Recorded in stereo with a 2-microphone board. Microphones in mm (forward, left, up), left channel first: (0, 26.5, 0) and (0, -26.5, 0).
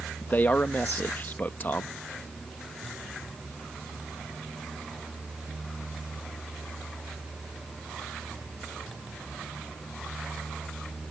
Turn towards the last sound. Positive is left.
turn(degrees=35)  # may be behind; listen again after turning